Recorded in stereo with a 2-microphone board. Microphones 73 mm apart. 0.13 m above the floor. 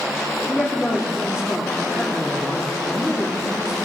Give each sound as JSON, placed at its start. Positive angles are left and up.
{"t": 0.5, "sound": "a man speaking", "side_deg": -10, "distance_m": 3.5}